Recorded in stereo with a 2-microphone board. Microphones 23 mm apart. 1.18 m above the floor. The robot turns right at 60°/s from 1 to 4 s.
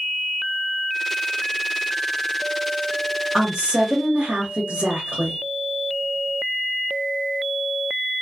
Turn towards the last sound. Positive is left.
turn(degrees=-120)